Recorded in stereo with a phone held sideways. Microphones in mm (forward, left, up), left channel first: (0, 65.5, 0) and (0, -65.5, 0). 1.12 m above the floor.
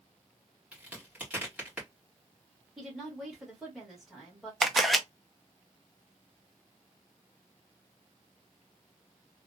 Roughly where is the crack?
Centre.